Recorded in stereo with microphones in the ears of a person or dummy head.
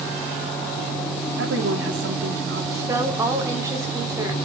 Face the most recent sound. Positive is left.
turn(degrees=-20)  # may be behind; listen again after turning